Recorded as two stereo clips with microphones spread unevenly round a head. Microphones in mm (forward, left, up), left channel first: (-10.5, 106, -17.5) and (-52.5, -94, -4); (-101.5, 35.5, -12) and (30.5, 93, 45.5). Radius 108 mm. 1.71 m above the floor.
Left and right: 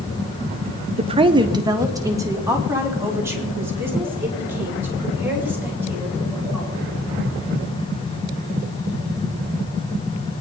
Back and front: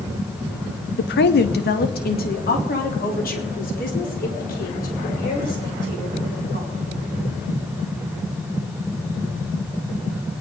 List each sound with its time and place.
1.0 s a woman speaking: 150° right, 0.6 m; by 6.8 s straight behind, 7.5 m